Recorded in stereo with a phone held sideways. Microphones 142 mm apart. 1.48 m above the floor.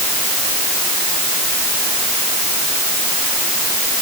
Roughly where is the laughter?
I don't hear laughter.